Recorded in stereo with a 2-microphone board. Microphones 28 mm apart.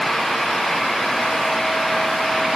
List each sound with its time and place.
Only background noise.